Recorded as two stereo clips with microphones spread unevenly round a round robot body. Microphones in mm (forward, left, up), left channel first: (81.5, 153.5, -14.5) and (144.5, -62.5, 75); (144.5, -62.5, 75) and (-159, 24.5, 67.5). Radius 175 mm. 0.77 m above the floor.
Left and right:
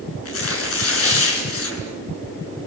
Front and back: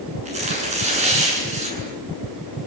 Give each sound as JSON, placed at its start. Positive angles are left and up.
{"t": 0.2, "sound": "tearing paper", "azimuth_deg": 95, "distance_m": 8.5}